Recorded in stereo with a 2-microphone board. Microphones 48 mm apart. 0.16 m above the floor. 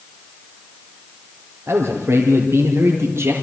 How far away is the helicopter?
No helicopter in this recording.